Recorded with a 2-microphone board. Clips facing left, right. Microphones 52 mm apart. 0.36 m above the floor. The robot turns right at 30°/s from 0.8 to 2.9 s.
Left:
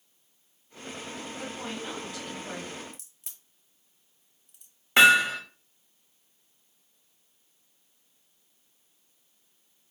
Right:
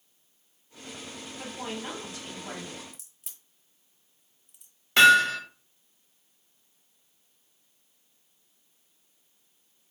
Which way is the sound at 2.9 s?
Centre (ahead or behind).